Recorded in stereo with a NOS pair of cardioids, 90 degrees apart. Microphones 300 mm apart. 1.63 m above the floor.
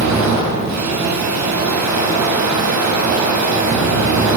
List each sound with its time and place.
0.0 s a machine running: 65° right, 8 m